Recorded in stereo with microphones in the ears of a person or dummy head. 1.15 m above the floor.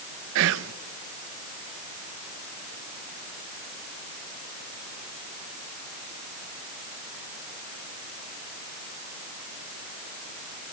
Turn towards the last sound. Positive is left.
turn(degrees=-65)  # may be behind; listen again after turning